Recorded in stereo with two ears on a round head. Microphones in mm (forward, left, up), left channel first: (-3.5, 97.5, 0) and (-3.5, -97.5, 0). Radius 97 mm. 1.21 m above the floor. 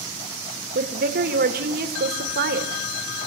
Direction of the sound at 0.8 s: 45° right (ahead or behind).